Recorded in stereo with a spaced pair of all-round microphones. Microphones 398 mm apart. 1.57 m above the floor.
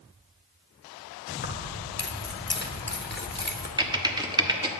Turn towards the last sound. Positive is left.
turn(degrees=-10)  # may be behind; listen again after turning